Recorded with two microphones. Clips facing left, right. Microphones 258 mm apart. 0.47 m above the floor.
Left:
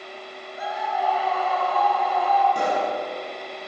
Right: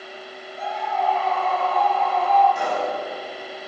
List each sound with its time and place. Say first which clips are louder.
0.6 s a scream: right 1 dB; 5° left (ahead or behind), 6.5 m
2.5 s a pop: left 1 dB; 45° left (ahead or behind), 8.5 m